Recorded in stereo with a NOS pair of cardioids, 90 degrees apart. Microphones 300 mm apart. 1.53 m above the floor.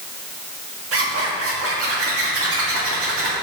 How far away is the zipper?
About 2 m.